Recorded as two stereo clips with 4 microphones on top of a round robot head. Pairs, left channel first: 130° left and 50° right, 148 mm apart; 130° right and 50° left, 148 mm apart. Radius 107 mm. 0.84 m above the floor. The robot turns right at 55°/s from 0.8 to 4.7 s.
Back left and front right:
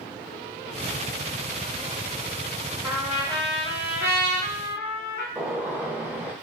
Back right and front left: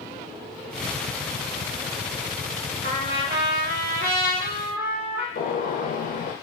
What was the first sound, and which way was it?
A trumpet, 25° left.